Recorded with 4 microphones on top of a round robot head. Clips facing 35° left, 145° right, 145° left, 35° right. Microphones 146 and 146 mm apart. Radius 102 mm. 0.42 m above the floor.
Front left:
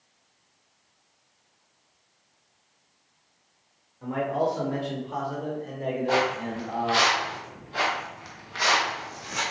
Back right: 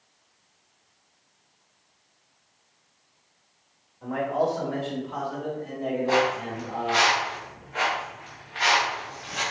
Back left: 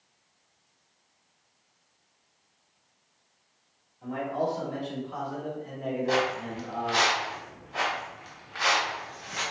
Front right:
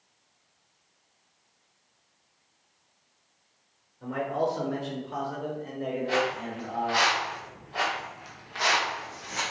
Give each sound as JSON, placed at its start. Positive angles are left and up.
{"t": 4.0, "sound": "a man speaking", "azimuth_deg": -30, "distance_m": 1.3}
{"t": 6.1, "sound": "footsteps", "azimuth_deg": 110, "distance_m": 1.2}